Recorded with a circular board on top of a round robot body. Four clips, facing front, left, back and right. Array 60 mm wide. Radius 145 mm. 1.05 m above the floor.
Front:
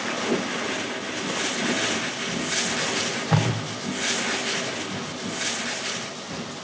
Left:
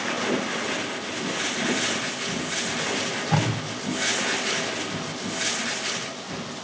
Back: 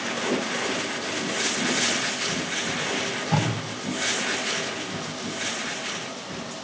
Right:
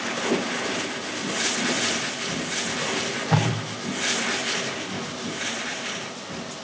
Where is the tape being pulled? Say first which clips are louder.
Right 1 dB, even; 40° right, 5.5 m.